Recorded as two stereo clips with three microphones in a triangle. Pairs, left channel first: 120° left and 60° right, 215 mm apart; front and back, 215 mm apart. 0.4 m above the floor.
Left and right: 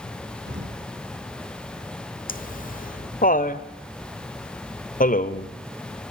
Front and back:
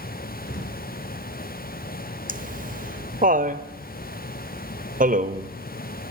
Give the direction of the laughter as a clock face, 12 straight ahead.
7 o'clock.